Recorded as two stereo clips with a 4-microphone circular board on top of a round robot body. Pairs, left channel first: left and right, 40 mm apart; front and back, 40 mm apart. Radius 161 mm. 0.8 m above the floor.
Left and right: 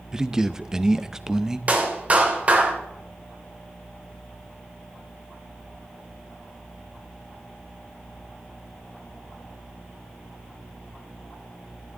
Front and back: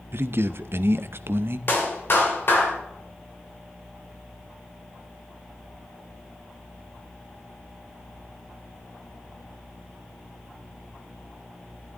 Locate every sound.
0.1 s a man speaking: 165° right, 0.8 m
1.7 s a clap: 35° right, 2.5 m